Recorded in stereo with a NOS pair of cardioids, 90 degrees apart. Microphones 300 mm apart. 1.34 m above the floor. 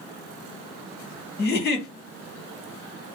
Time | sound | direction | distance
1.4 | a giggle | 30° left | 1.2 m